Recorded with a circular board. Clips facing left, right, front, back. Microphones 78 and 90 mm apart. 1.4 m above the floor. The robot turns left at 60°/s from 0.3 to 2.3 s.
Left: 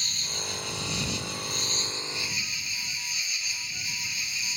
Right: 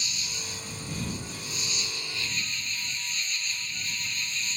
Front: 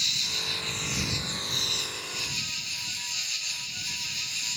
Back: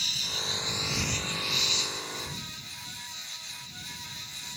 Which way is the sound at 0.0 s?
130° left.